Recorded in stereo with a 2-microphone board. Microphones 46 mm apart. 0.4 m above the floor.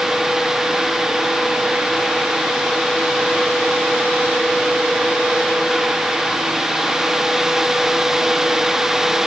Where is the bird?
I don't hear a bird.